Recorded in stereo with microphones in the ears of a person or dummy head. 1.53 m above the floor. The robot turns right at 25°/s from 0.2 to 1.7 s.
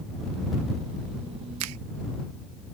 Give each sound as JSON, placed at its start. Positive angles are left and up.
{"t": 1.6, "sound": "a finger snap", "side_deg": -90}